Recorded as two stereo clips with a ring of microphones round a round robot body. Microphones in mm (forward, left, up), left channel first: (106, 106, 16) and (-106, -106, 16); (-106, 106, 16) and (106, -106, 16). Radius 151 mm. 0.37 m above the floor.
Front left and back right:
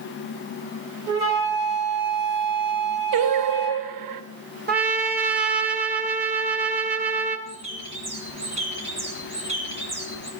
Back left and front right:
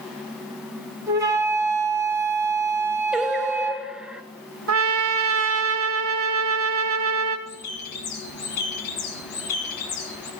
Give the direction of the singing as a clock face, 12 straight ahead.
4 o'clock.